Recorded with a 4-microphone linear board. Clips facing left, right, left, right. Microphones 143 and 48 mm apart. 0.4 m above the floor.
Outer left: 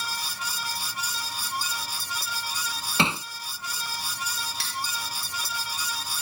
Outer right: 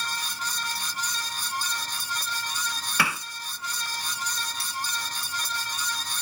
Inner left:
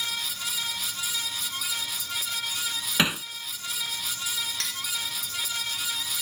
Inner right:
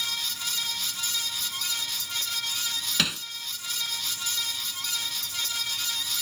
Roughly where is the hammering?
Left.